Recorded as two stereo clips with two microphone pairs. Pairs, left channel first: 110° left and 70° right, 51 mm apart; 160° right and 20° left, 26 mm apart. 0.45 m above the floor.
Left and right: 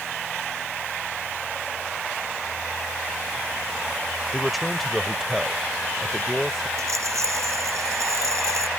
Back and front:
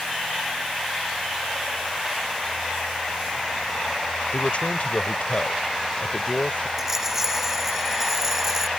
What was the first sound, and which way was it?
A man speaking, 160° right.